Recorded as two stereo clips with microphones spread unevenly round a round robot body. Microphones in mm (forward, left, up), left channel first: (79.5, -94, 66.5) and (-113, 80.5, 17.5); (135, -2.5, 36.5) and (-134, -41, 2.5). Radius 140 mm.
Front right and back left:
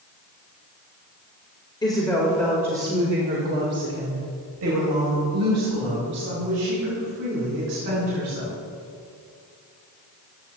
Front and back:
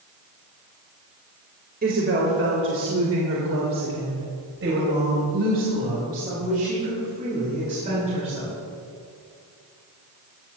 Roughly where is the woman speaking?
Behind right.